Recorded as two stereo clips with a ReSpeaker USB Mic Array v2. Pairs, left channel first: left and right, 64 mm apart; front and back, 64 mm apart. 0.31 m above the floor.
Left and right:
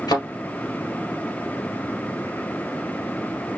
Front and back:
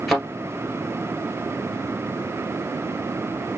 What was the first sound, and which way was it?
A thud, 95° left.